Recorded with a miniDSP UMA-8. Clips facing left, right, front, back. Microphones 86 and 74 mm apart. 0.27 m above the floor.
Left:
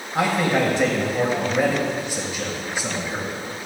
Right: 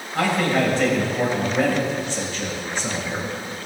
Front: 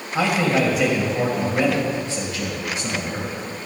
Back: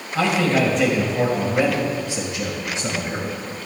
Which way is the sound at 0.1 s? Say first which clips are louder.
Even, back 1 dB; 50° left.